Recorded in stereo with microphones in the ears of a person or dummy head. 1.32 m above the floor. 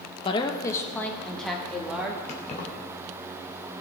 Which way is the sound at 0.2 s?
25° left (ahead or behind).